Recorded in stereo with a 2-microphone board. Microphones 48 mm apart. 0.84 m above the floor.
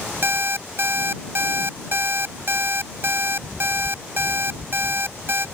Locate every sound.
0.2 s an alarm clock: 55° right (ahead or behind)